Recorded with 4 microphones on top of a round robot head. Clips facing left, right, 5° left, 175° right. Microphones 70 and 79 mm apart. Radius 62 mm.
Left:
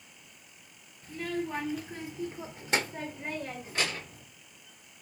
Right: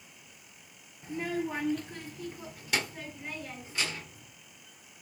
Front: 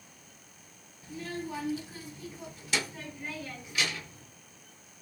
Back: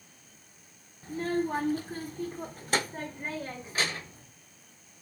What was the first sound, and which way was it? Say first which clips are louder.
A child speaking: right 1 dB, back 8 dB; 150° right.